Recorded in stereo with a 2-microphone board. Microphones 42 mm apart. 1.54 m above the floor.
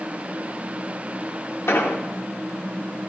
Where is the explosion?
90° left, 1.4 m.